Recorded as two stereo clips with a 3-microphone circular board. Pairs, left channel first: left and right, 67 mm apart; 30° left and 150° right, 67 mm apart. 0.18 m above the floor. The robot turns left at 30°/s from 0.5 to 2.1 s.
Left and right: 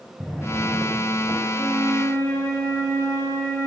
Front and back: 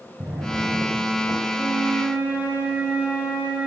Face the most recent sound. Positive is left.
turn(degrees=140)